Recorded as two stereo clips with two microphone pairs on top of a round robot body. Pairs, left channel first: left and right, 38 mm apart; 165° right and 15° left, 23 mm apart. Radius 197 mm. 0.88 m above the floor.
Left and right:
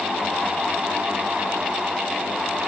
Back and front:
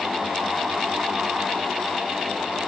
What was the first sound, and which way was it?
Only background noise.